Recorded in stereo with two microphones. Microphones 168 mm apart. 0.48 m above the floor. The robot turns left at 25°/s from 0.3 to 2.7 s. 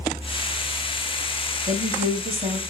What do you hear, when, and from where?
1.7 s a woman speaking: 45° right (ahead or behind), 1.8 m; by 2.6 s 65° right (ahead or behind), 1.8 m